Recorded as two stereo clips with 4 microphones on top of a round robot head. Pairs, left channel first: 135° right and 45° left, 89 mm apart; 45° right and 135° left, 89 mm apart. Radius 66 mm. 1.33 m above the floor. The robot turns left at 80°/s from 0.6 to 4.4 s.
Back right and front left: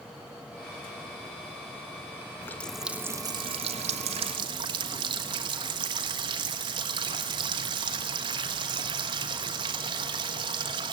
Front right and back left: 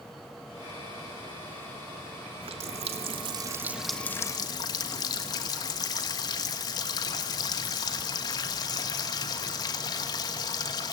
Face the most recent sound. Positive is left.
turn(degrees=5)